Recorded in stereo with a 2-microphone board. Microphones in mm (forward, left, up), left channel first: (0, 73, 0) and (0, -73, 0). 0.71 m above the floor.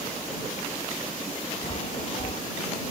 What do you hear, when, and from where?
1.6 s a chime: 45° left (ahead or behind)